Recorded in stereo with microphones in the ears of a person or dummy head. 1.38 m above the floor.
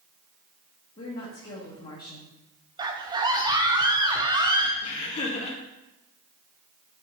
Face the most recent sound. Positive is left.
turn(degrees=35)  # may be behind; listen again after turning